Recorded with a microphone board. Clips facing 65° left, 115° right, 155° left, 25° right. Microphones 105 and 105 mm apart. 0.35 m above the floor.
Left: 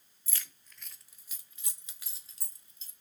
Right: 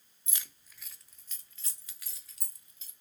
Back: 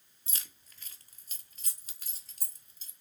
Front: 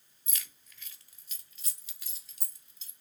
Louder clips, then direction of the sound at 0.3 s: Left 1 dB, even; 165° right.